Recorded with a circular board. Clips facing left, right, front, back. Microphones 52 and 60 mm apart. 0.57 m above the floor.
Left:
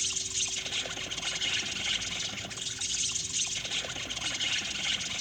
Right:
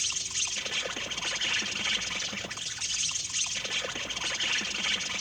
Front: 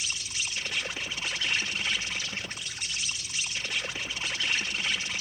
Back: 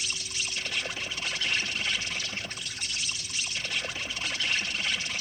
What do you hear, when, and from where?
0.0 s an insect: 65° right, 3.5 m